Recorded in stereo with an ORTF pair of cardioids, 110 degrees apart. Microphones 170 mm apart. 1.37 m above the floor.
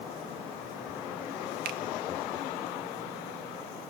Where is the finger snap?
65° right, 0.6 m.